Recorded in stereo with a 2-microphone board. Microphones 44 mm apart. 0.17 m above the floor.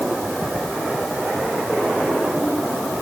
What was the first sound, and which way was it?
Only background noise.